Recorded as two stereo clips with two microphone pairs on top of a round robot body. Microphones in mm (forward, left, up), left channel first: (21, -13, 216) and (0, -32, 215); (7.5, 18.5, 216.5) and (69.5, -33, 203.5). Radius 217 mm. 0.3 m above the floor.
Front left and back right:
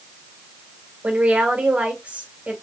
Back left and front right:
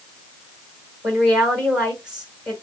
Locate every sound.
1.0 s a woman speaking: 115° right, 3.5 m